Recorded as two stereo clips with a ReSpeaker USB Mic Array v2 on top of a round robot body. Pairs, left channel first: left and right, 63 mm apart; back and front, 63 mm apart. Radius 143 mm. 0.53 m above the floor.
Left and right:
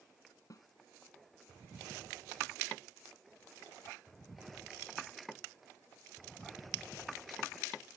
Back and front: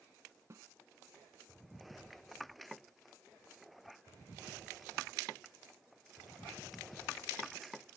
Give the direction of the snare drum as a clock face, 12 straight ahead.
10 o'clock.